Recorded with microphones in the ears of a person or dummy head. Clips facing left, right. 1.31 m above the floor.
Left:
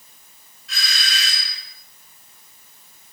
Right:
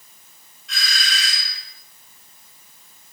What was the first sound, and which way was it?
A doorbell, centre (ahead or behind).